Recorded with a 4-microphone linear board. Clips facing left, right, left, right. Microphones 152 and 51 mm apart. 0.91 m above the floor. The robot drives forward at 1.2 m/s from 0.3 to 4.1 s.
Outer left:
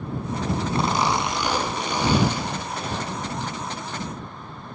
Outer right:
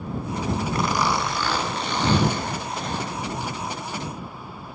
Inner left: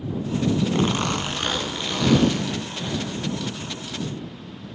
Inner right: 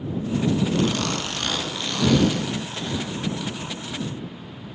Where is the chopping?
I don't hear chopping.